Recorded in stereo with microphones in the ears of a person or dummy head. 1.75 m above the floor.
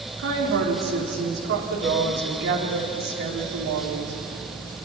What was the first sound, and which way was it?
A woman speaking, 70° right (ahead or behind).